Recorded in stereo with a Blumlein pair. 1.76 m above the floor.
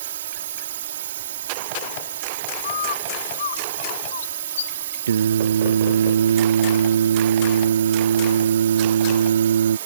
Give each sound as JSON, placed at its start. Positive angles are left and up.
{"t": 0.0, "sound": "a drone", "azimuth_deg": -60}
{"t": 2.6, "sound": "a bird", "azimuth_deg": 60}
{"t": 5.1, "sound": "singing", "azimuth_deg": -65}